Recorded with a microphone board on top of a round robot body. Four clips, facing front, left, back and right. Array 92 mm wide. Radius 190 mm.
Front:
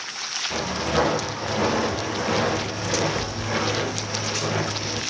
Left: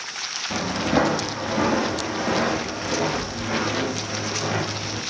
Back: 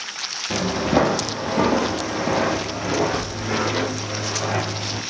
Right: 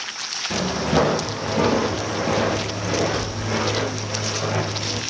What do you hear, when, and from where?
0.5 s footsteps: 175° right, 0.6 m